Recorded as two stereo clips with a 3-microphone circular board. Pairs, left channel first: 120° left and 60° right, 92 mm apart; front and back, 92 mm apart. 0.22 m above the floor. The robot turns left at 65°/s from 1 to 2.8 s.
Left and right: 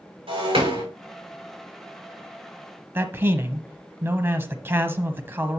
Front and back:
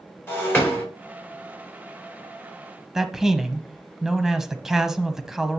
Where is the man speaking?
100° right, 1.1 m.